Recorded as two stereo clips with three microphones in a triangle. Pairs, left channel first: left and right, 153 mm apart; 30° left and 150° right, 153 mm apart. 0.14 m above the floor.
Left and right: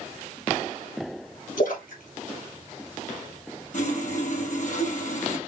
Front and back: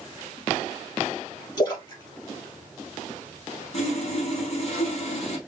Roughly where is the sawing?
Left.